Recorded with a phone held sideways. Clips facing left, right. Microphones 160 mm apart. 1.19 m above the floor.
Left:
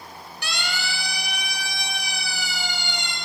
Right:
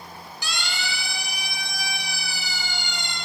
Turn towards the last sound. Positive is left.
turn(degrees=80)